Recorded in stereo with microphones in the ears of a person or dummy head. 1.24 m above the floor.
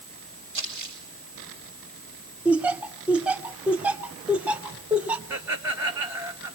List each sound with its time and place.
0.5 s crumpling: 45° right (ahead or behind), 8.5 m
2.5 s laughter: 10° right (ahead or behind), 0.6 m
5.3 s laughter: 20° right (ahead or behind), 2.5 m